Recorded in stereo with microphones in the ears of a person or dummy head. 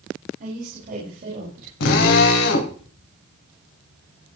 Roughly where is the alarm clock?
I don't hear an alarm clock.